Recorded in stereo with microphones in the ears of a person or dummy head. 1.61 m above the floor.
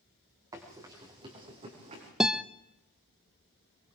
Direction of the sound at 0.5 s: 20° right (ahead or behind).